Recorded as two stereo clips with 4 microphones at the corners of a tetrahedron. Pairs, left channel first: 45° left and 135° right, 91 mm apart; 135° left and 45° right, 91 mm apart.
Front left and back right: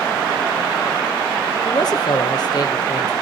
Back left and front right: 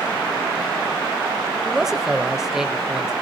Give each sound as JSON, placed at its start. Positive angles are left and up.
{"t": 1.6, "sound": "a man speaking", "azimuth_deg": 35, "distance_m": 1.2}